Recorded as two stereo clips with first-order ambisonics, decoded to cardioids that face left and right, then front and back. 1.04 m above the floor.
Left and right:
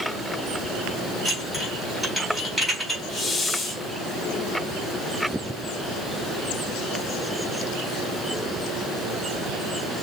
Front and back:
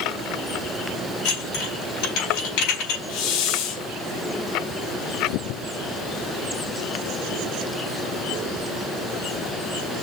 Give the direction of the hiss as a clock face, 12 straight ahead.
12 o'clock.